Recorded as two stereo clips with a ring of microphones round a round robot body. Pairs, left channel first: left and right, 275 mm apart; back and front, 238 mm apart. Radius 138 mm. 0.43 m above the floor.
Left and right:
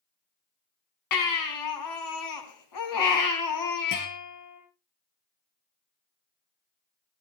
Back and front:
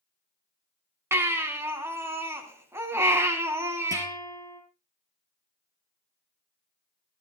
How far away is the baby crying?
About 3 m.